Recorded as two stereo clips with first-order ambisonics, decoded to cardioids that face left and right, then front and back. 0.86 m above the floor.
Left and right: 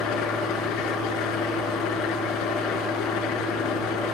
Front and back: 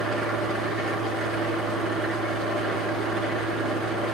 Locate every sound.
0.0 s an engine running: 120° left, 4.5 m